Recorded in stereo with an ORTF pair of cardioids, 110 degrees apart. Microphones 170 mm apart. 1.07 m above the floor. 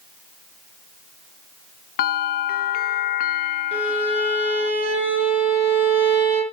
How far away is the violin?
About 7.5 m.